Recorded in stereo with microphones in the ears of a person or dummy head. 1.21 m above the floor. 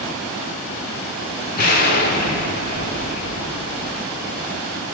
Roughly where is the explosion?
Left.